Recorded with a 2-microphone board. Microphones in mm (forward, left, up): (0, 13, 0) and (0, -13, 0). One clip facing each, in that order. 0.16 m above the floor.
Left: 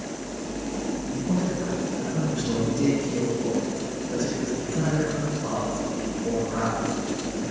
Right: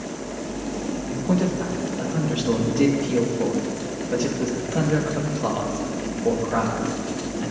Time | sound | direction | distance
1.1 | a man speaking | 45° right (ahead or behind) | 3.5 m